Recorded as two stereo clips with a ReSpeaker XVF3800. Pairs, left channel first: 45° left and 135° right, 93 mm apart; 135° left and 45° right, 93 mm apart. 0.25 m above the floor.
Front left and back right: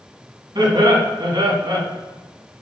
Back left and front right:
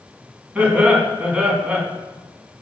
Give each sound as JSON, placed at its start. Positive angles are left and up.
{"t": 0.6, "sound": "laughter", "azimuth_deg": -120, "distance_m": 2.0}